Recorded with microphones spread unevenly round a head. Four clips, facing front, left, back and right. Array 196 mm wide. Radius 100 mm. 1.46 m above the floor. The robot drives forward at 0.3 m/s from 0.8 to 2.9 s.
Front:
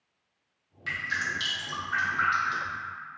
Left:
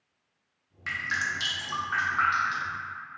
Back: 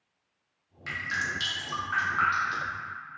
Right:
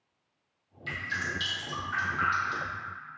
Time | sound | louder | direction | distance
0.9 | dripping | left 3 dB, even | 95° left | 0.9 m